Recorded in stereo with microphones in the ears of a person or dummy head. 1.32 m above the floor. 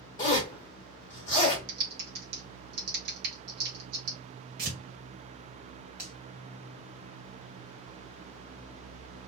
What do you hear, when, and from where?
0.2 s a zipper: 20° left (ahead or behind), 1.1 m
1.7 s typing on a keyboard: 60° right (ahead or behind), 0.9 m
4.6 s tearing paper: 50° right (ahead or behind), 1.5 m
6.0 s a finger snap: 10° right (ahead or behind), 2.0 m